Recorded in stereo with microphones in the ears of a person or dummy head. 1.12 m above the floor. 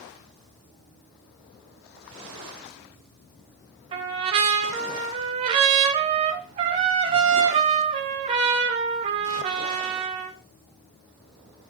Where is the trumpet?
35° right (ahead or behind), 1.2 m.